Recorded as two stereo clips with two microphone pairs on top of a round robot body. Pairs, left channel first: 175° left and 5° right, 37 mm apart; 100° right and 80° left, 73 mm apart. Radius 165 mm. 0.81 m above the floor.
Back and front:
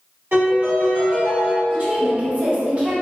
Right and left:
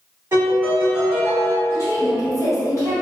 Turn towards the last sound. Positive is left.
turn(degrees=-55)